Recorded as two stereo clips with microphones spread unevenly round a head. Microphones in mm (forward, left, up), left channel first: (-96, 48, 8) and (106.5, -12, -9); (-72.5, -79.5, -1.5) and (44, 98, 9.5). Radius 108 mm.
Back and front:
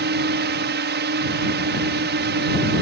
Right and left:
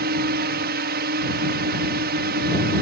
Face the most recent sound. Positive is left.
turn(degrees=15)